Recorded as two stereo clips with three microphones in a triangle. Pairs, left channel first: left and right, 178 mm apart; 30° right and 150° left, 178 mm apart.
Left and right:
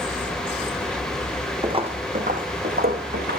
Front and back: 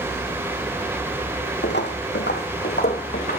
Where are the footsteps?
25° right, 1.7 m; by 3.4 s 65° right, 3 m.